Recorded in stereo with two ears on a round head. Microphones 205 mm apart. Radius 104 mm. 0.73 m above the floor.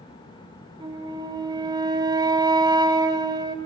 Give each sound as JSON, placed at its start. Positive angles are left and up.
{"t": 0.8, "sound": "a flute", "side_deg": -20, "distance_m": 2.5}